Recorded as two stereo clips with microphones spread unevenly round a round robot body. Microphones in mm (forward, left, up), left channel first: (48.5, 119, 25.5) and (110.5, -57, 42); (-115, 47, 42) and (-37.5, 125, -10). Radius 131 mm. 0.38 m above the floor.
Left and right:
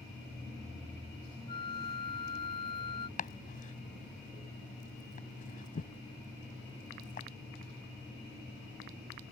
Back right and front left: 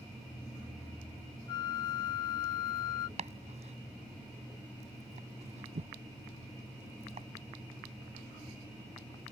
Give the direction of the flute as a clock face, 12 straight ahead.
7 o'clock.